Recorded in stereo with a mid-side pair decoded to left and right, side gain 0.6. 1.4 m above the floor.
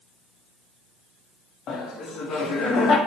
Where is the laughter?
55° left, 0.9 m.